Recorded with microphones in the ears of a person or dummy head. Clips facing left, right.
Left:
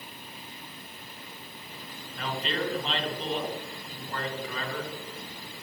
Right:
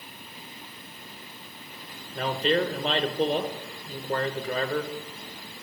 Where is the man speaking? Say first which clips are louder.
Right 7 dB; 45° right (ahead or behind), 1.3 m.